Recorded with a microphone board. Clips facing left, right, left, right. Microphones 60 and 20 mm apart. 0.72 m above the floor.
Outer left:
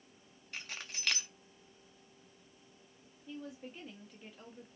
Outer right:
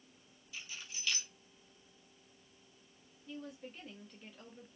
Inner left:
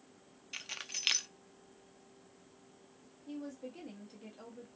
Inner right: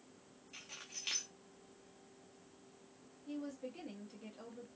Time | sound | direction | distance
0.5 | keys jangling | 60° left (ahead or behind) | 0.5 m
3.3 | a woman speaking | 5° left (ahead or behind) | 1.1 m